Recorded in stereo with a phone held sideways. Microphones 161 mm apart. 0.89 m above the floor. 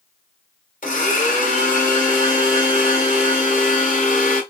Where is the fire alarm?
No fire alarm in this recording.